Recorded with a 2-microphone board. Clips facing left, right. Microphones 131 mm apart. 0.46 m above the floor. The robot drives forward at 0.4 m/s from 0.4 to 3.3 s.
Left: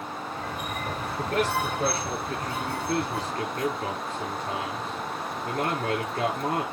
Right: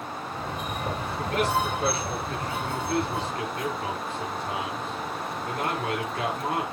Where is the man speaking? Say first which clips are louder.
Even; 40° left (ahead or behind), 8.5 m; by 6.6 s 35° left (ahead or behind), 9 m.